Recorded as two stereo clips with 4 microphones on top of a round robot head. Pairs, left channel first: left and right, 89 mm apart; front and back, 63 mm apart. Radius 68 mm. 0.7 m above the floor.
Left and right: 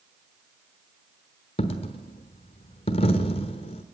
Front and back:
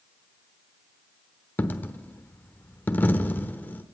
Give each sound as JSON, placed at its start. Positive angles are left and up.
{"t": 1.6, "sound": "a dropped coin", "azimuth_deg": 60, "distance_m": 0.9}